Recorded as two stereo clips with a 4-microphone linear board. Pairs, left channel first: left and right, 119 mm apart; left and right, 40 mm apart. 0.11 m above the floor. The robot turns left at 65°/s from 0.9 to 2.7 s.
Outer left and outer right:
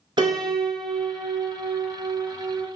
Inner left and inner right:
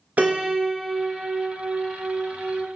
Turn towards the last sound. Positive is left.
turn(degrees=160)